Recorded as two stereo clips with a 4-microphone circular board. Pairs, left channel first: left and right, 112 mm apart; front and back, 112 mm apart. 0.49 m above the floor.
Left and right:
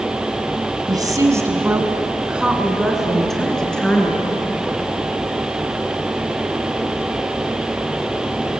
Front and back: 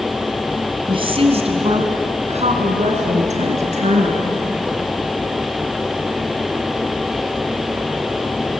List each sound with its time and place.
0.9 s a woman speaking: 140° right, 3.5 m; by 4.3 s 170° left, 6.5 m